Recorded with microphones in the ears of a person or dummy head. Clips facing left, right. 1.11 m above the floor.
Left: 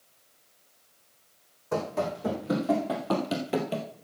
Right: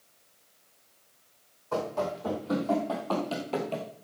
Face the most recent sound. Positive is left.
turn(degrees=15)  # may be behind; listen again after turning